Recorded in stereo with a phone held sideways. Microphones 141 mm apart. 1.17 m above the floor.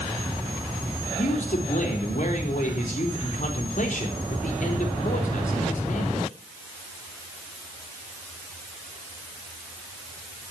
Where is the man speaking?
70° left (ahead or behind), 4 m.